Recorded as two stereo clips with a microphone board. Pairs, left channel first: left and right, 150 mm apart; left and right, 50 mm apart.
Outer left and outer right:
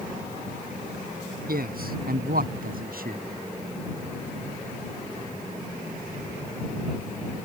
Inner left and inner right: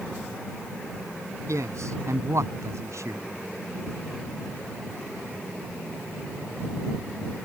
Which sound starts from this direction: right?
A man speaking, at 1.5 s.